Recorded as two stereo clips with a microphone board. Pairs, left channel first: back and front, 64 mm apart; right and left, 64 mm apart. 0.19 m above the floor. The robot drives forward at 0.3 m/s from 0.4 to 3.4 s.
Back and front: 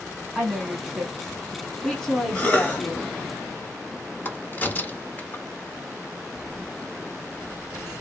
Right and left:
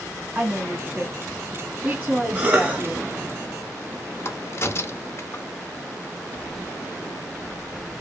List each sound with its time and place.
0.3 s a woman speaking: 75° left, 1.6 m; by 3.1 s 130° left, 1.7 m
2.4 s a cough: 135° left, 1.2 m; by 2.8 s 140° left, 1.2 m
4.2 s a crack: 125° right, 0.6 m